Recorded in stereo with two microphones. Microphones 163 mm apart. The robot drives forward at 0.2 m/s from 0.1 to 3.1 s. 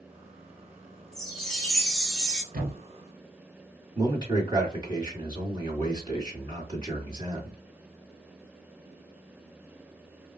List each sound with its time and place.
1.1 s a chime: 5° left (ahead or behind), 0.7 m; by 2.4 s centre (ahead or behind), 1.0 m
2.5 s a thud: 60° right (ahead or behind), 1.5 m
4.0 s a man speaking: 25° right (ahead or behind), 1.7 m